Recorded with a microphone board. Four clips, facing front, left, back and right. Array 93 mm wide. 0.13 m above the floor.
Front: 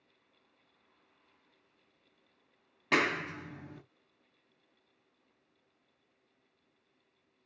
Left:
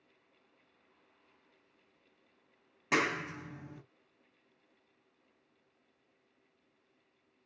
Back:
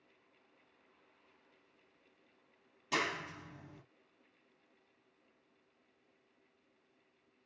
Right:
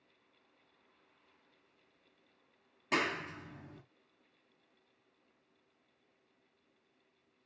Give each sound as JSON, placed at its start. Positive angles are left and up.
{"t": 2.9, "sound": "a clap", "azimuth_deg": 20, "distance_m": 1.4}